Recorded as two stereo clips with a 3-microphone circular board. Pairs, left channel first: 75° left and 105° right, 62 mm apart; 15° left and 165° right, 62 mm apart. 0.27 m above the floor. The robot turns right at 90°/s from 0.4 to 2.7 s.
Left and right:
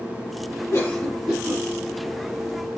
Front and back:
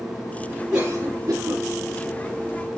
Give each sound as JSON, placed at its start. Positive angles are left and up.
{"t": 0.7, "sound": "a cough", "azimuth_deg": 115, "distance_m": 5.0}